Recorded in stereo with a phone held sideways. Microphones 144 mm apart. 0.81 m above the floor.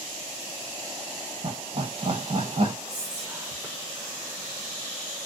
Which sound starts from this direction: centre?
Whispering, at 2.9 s.